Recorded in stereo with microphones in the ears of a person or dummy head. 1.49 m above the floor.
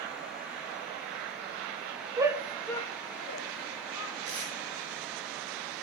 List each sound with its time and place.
2.2 s a shout: 15° right (ahead or behind), 1.5 m; by 4.2 s 80° left, 2 m
4.2 s tape being pulled: 40° right (ahead or behind), 9 m